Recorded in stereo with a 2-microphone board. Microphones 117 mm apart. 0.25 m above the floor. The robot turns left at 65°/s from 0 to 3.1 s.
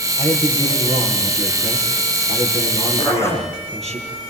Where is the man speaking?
165° right, 7.5 m; by 4.0 s 5° left, 7.5 m.